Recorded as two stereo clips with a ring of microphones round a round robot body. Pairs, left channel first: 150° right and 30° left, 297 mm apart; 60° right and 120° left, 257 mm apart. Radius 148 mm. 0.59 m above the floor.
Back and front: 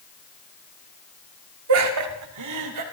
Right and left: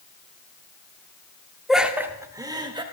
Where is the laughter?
30° left, 1.5 m; by 2.8 s 50° left, 3 m.